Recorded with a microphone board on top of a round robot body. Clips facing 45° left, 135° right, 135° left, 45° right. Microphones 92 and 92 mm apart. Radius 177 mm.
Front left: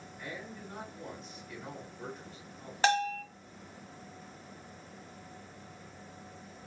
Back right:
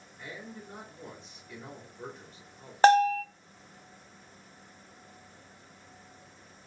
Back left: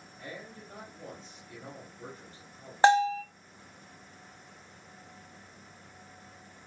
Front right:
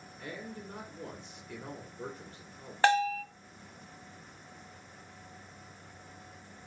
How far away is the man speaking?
About 1.5 m.